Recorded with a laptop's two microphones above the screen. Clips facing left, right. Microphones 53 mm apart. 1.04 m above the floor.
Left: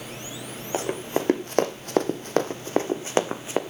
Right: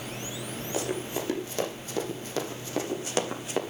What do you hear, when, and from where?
0.7 s running footsteps: 40° left (ahead or behind), 2.5 m; by 3.6 s 25° left (ahead or behind), 3 m